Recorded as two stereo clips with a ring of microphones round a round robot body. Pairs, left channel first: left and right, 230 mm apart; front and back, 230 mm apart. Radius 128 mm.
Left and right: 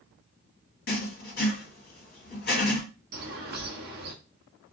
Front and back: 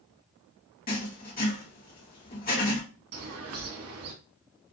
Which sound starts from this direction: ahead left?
Writing, at 0.9 s.